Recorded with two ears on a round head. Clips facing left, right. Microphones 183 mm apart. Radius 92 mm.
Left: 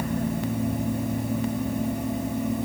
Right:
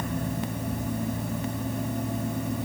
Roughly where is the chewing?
I don't hear chewing.